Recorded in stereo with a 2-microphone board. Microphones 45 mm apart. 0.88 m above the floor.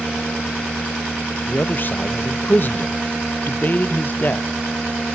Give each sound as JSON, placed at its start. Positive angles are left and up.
{"t": 1.5, "sound": "a man speaking", "side_deg": 45, "distance_m": 0.6}